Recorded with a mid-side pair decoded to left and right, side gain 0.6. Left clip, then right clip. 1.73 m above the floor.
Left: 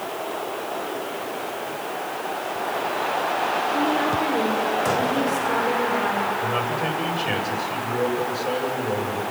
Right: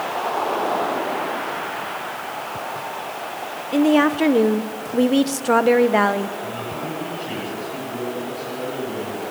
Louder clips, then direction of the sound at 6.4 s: Left 5 dB; 65° left.